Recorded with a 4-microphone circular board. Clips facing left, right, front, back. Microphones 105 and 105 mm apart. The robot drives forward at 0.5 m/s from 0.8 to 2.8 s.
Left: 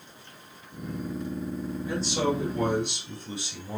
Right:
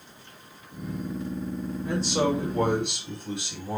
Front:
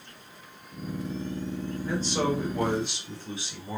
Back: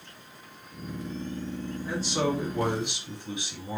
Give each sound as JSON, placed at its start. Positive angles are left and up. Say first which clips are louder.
{"t": 1.9, "sound": "a man speaking", "louder": "right 2 dB, front 1 dB", "azimuth_deg": -95, "distance_m": 3.0}